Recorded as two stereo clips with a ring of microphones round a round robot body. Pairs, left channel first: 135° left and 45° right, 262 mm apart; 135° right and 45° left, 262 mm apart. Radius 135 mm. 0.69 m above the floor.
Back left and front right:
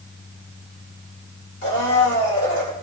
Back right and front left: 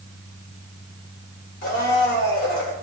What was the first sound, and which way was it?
A blender, straight behind.